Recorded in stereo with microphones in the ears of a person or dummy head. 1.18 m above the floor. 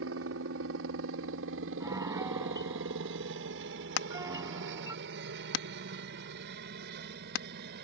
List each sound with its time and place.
0.0 s a helicopter: 70° right (ahead or behind); by 7.8 s 60° right (ahead or behind)
1.8 s a piano: 10° right (ahead or behind)
4.0 s hammering: 70° left (ahead or behind)